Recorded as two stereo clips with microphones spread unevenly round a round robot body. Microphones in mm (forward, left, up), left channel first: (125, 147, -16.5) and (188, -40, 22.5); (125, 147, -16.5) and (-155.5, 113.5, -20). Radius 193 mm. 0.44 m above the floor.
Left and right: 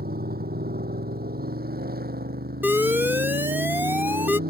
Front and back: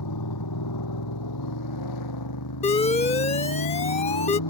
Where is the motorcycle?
30° right.